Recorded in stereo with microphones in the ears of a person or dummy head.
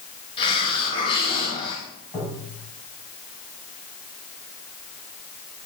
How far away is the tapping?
About 4.5 m.